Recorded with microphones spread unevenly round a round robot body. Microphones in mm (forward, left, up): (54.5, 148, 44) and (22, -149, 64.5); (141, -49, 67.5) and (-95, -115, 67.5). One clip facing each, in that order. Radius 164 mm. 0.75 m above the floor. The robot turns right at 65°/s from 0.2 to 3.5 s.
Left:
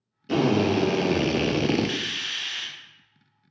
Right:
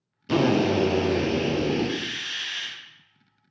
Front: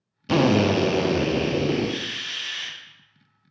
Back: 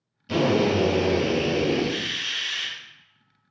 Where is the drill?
15° right, 0.5 m; by 2.7 s 145° left, 0.5 m.